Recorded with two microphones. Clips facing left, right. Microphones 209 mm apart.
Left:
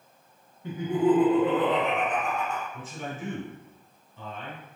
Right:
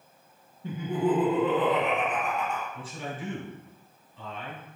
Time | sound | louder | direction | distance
0.6 | laughter | left 4 dB | 35° right (ahead or behind) | 1.7 m
2.7 | a man speaking | even | 40° left (ahead or behind) | 1.8 m